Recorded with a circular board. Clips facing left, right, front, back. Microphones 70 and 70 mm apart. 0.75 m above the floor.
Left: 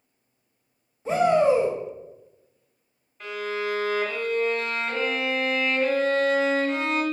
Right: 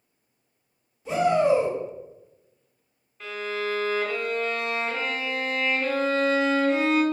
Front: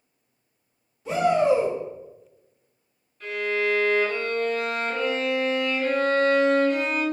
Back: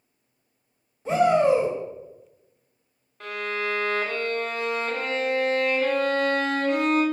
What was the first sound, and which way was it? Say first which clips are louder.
A shout: left 1 dB, back 1 dB; 135° left.